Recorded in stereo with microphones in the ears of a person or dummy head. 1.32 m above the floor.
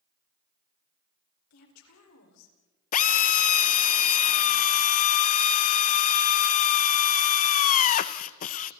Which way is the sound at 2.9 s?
45° left (ahead or behind).